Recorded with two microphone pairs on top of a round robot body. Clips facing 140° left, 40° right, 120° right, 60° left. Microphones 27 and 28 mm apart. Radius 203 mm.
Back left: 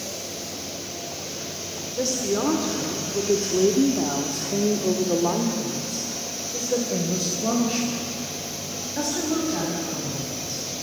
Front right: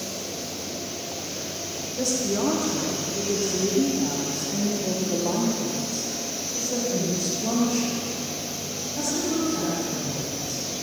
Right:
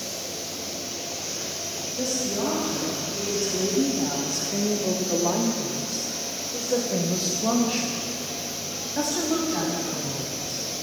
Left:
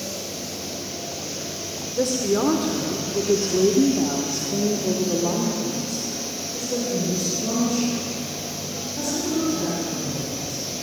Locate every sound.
2.0 s a woman speaking: 80° left, 3 m; by 10.6 s 160° right, 8 m